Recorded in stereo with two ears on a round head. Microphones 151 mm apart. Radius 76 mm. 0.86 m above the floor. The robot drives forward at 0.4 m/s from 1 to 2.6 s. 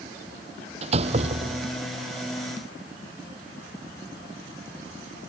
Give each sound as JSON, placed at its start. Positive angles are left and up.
{"t": 0.8, "sound": "a door slam", "side_deg": -40}